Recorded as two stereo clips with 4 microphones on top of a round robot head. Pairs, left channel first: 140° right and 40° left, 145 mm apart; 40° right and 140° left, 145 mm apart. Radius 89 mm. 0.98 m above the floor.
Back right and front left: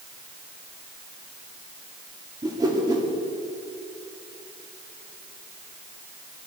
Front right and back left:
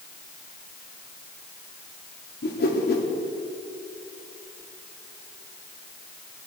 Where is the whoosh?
25° right, 2 m.